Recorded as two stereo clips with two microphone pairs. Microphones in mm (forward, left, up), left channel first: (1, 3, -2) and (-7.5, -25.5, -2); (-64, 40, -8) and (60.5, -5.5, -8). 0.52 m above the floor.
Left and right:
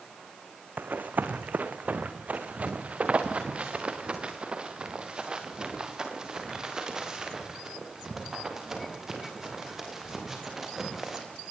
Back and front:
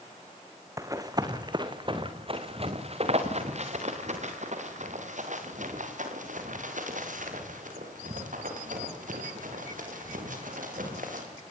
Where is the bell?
No bell in this recording.